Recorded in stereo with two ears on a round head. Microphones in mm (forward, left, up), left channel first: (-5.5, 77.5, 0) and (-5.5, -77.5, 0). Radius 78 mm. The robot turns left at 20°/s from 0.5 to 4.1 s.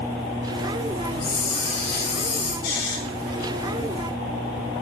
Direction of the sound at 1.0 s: 125° left.